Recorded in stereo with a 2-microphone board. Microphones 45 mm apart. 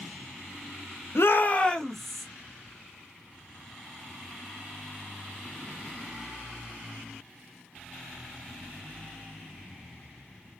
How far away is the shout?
About 0.6 m.